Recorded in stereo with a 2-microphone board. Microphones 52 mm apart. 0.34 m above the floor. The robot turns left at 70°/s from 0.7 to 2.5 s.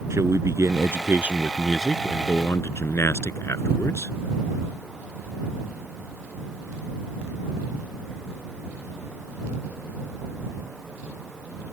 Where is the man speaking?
110° right; by 4.2 s 125° left.